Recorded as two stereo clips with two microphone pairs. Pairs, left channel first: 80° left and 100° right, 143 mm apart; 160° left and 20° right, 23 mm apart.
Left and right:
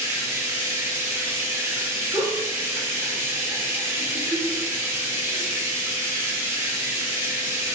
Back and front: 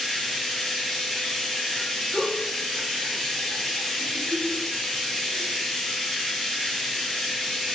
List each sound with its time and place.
0.0 s running water: 160° right, 1.0 m
2.1 s a giggle: 25° right, 0.9 m